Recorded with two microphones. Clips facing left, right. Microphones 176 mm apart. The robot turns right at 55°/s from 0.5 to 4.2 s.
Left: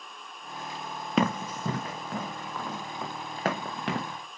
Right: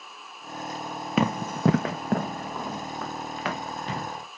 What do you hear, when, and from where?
1.2 s running footsteps: centre (ahead or behind), 0.6 m; by 4.0 s 75° left (ahead or behind), 2.5 m